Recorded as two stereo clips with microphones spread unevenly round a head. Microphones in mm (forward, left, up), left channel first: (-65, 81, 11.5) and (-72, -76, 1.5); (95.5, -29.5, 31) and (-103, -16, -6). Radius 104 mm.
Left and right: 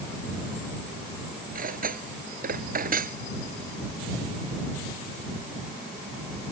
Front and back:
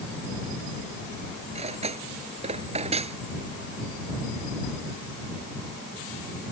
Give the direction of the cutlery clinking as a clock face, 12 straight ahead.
4 o'clock.